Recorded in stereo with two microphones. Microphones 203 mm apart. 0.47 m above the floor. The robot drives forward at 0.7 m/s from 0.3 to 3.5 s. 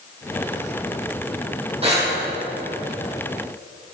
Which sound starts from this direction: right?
Breathing, at 1.8 s.